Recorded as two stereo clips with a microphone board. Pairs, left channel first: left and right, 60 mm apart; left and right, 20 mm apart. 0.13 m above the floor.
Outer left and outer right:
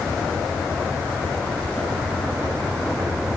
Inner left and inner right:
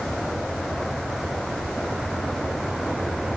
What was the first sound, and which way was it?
Only background noise.